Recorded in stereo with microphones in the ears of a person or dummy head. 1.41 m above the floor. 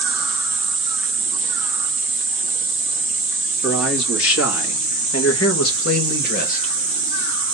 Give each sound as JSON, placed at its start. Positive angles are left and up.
{"t": 3.6, "sound": "a man speaking", "side_deg": 80, "distance_m": 3.0}